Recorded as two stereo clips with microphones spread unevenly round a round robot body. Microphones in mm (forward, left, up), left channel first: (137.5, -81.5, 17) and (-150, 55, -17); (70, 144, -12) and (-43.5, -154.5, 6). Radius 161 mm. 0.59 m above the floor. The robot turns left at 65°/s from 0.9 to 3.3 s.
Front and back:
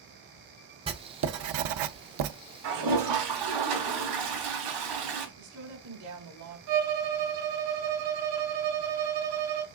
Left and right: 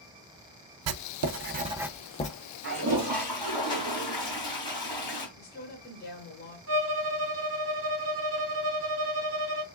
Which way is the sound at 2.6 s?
170° right.